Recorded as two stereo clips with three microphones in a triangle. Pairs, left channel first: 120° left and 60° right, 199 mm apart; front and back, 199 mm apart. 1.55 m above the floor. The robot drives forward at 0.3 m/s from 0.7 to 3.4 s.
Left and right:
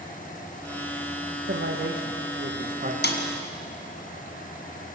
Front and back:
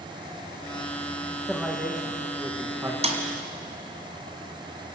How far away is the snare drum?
About 2.5 m.